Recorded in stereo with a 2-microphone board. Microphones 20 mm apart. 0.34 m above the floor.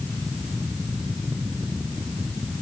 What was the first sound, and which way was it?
Only background noise.